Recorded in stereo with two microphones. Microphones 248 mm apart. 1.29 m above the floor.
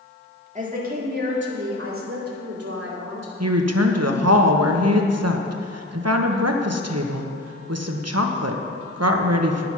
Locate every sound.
0.6 s a woman speaking: 30° right (ahead or behind), 2.5 m; by 3.3 s 80° right, 3.5 m
3.4 s a woman speaking: 85° right, 1.1 m